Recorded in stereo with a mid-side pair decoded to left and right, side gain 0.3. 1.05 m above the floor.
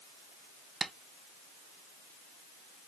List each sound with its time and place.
0.8 s tapping: 60° right, 0.6 m